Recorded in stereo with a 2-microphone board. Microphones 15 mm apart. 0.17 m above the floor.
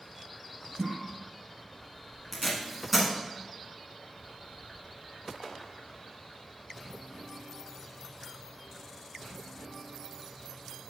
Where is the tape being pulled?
5° right (ahead or behind), 1.3 m.